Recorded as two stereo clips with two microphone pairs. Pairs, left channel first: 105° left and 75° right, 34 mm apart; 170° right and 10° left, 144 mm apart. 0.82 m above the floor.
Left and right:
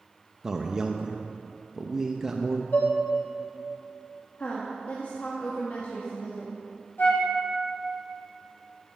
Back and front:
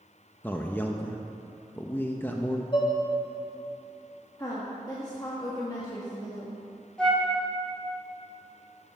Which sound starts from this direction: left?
A flute, at 7.0 s.